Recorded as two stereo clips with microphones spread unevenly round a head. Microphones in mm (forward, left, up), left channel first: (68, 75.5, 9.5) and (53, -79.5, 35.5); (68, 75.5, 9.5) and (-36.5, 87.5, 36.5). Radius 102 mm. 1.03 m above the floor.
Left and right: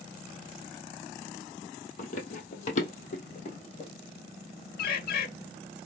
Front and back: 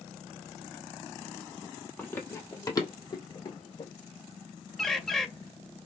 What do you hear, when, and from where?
2.0 s running footsteps: 75° left, 1.2 m; by 3.9 s 35° left, 2 m
4.8 s a bird: 90° left, 0.7 m